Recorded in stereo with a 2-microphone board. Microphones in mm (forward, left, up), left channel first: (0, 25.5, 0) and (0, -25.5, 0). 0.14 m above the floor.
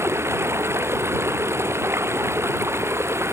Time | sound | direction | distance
0.0 | running water | 55° right (ahead or behind) | ?